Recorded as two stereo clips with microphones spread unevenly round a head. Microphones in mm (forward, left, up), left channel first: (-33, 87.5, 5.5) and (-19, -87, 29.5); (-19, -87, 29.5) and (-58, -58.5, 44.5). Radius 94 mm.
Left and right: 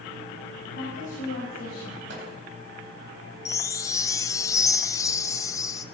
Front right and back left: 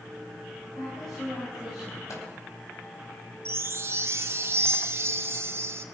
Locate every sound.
0.7 s a woman speaking: 45° left, 5.5 m; by 2.0 s 55° left, 6.5 m
2.1 s a microwave: 55° right, 4 m
3.5 s a chime: 135° left, 1.0 m